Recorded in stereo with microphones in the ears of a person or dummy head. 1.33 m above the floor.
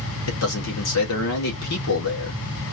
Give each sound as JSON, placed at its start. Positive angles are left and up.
{"t": 0.3, "sound": "a man speaking", "side_deg": 80, "distance_m": 1.5}